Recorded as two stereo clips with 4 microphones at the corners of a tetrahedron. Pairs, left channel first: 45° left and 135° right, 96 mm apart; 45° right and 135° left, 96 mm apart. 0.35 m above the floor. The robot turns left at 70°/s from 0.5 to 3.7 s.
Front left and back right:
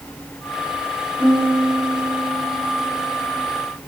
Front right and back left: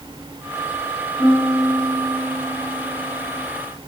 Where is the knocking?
No knocking in this recording.